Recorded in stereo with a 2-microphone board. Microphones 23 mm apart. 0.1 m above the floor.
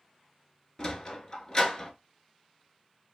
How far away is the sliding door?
About 0.8 m.